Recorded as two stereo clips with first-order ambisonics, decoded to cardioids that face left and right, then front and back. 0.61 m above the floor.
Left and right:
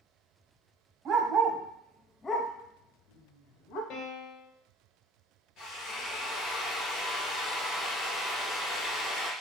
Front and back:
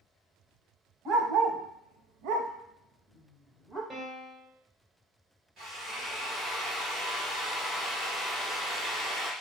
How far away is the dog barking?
About 1.0 m.